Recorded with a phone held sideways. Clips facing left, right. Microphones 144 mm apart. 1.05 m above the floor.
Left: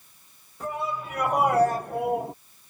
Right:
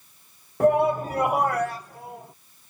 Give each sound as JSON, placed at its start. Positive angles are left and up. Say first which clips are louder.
{"t": 0.6, "sound": "a shout", "louder": "right 12 dB", "side_deg": -60}